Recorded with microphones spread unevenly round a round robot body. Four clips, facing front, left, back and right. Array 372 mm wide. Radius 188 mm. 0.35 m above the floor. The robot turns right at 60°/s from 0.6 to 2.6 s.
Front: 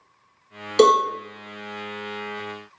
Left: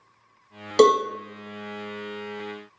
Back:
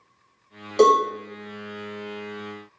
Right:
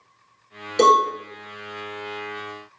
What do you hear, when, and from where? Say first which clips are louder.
0.8 s a cowbell: right 1 dB, front 1 dB; 65° left, 0.5 m; by 1.0 s 80° left, 0.5 m